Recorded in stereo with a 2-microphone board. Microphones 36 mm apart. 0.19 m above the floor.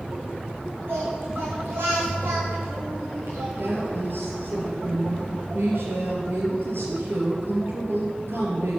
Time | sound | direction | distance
0.9 | singing | 85° right | 4.5 m
3.6 | a woman speaking | 70° right (ahead or behind) | 4.5 m